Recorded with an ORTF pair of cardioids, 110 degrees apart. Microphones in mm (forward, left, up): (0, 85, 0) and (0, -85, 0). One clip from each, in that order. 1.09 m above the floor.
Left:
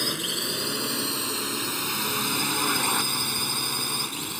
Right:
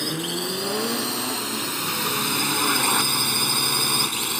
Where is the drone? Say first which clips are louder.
Even; 15° left; by 4.4 s 40° right.